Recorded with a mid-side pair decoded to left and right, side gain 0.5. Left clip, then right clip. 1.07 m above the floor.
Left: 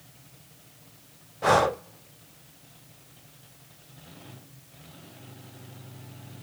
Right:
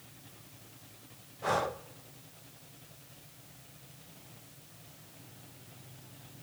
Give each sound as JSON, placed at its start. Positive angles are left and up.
{"t": 1.4, "sound": "breathing", "azimuth_deg": 50, "distance_m": 0.5}